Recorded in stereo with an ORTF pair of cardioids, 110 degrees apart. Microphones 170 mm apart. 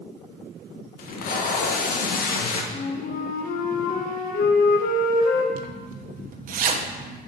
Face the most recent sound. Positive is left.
turn(degrees=-55)